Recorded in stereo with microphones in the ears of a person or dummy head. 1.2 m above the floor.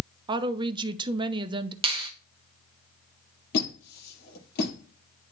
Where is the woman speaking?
20° right (ahead or behind), 0.6 m.